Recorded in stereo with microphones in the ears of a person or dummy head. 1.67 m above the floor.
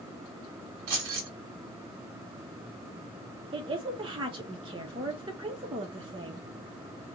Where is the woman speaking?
25° right (ahead or behind), 0.8 m.